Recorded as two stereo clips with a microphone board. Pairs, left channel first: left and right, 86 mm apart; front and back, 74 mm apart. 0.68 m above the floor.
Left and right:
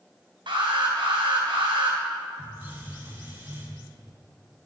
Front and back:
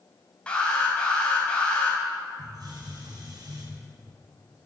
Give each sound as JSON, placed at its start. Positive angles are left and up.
{"t": 0.5, "sound": "an alarm", "azimuth_deg": -75, "distance_m": 4.0}
{"t": 2.4, "sound": "a hiss", "azimuth_deg": -150, "distance_m": 4.5}